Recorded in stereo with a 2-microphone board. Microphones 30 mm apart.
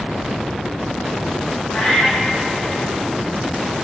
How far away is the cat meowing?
About 3 m.